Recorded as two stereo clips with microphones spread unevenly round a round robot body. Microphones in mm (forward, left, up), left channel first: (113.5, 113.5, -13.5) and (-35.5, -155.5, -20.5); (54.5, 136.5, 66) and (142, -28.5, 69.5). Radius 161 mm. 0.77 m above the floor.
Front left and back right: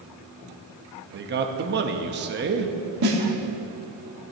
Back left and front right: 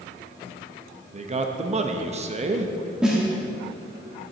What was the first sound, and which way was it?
A man speaking, 90° right.